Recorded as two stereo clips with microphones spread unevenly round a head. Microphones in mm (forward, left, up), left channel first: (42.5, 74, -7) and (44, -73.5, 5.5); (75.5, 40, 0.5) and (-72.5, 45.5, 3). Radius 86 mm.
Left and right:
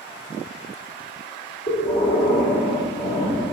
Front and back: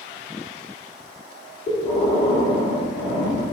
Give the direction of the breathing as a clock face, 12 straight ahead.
10 o'clock.